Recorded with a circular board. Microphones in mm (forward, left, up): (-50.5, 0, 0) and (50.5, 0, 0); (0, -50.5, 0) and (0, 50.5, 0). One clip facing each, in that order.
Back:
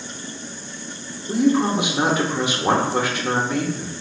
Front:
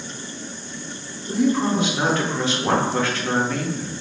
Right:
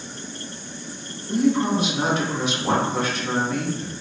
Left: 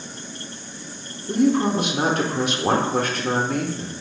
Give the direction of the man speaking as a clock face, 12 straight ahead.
8 o'clock.